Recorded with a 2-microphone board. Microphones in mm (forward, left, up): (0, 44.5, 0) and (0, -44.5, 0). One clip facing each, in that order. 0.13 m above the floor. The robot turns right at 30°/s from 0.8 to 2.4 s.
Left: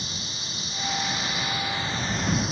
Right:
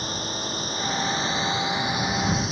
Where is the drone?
50° right; by 2.5 s straight ahead.